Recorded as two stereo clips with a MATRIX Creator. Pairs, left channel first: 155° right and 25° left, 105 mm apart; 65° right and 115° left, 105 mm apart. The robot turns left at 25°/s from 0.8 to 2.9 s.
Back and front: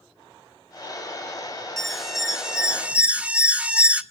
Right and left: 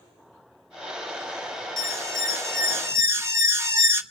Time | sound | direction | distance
1.8 | an alarm | 115° left | 1.3 m